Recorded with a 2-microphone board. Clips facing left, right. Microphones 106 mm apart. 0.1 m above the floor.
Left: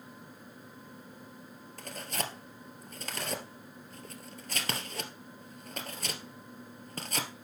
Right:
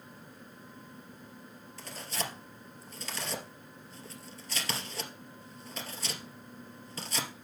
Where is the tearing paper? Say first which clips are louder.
Left 1 dB; 50° left (ahead or behind), 1.9 m.